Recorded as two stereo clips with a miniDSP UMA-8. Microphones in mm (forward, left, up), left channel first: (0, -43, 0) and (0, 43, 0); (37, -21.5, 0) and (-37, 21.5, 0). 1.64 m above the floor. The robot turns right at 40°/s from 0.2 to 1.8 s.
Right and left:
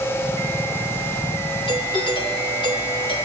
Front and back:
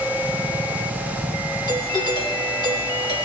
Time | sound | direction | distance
1.7 | a doorbell | 65° right | 5 m